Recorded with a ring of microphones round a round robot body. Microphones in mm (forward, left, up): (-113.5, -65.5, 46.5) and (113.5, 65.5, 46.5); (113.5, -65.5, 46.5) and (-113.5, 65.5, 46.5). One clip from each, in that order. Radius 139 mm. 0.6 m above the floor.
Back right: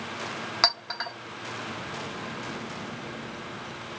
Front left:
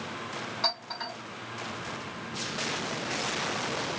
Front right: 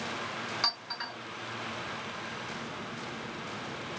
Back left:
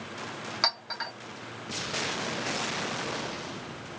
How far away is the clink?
About 1.2 m.